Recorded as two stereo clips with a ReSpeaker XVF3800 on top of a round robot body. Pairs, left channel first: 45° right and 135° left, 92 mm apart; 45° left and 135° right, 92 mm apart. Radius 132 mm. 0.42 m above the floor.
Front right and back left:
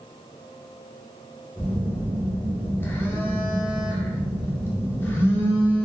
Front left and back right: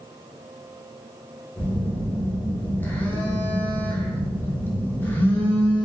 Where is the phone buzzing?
5° right, 0.7 m.